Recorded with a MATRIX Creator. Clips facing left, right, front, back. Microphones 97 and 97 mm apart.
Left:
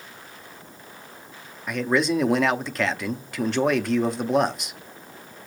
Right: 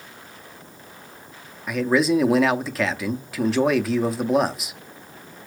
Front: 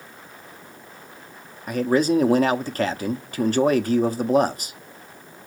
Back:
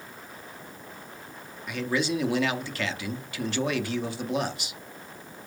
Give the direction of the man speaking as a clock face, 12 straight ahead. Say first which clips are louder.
Right 3 dB, front 8 dB; 12 o'clock.